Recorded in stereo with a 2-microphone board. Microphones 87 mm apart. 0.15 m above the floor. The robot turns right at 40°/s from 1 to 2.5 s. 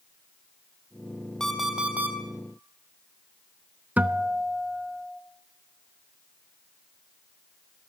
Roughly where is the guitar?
Centre.